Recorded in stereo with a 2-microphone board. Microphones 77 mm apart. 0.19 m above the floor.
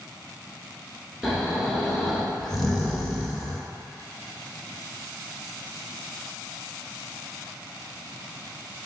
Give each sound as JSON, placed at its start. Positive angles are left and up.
{"t": 1.2, "sound": "snoring", "side_deg": 0, "distance_m": 0.6}